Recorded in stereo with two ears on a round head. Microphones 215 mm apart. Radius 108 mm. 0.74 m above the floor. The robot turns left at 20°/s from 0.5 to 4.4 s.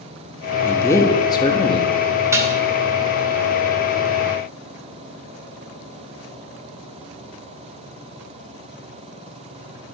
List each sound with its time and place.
0.6 s a man speaking: 10° left (ahead or behind), 1.0 m; by 1.9 s 25° left (ahead or behind), 1.0 m
2.3 s dishes clattering: 10° right (ahead or behind), 1.1 m; by 2.6 s 15° right (ahead or behind), 1.1 m